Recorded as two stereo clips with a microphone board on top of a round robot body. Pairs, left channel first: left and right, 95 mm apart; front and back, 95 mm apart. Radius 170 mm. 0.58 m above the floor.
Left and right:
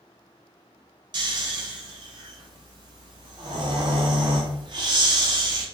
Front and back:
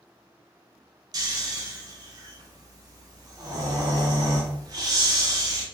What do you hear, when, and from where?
1.1 s snoring: 130° right, 0.8 m